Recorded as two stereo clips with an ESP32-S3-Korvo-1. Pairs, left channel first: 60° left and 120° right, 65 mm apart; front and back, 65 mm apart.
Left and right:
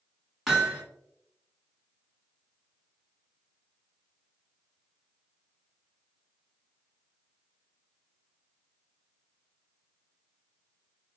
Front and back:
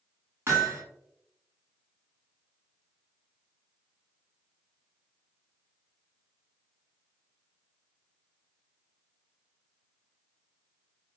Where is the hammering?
155° left, 1.2 m.